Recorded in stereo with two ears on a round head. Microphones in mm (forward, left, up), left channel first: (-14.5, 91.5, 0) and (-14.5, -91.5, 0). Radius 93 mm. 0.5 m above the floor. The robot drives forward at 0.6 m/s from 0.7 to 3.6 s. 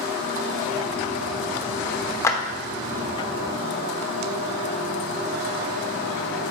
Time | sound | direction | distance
2.2 | a clap | 15° left (ahead or behind) | 0.9 m